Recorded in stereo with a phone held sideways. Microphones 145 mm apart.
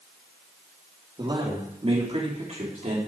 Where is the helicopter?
No helicopter in this recording.